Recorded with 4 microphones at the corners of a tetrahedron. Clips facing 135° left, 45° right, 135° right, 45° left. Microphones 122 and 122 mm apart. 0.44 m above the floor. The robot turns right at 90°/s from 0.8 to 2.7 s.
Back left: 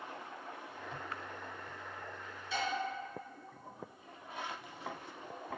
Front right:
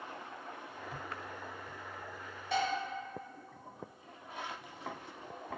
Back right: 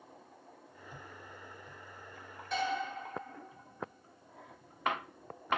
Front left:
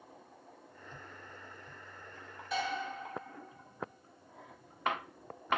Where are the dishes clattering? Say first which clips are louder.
Front right 5 dB, back right 1 dB; 45° right, 1.0 m; by 2.7 s 30° right, 1.0 m.